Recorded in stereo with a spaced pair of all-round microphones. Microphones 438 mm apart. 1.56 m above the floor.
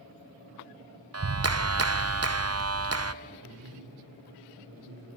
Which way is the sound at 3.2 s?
60° right (ahead or behind).